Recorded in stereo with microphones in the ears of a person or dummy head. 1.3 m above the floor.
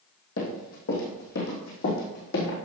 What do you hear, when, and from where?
0.4 s running footsteps: 65° left (ahead or behind), 3 m